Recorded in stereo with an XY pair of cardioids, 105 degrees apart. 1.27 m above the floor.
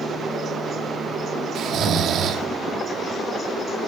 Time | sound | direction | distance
1.6 | snoring | 70° right | 2 m